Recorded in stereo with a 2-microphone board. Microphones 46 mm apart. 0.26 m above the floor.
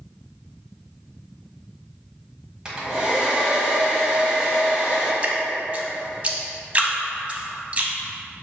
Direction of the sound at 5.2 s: 30° right (ahead or behind).